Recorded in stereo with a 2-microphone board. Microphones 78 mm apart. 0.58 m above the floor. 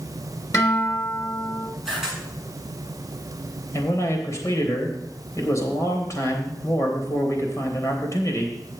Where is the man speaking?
40° left (ahead or behind), 3 m.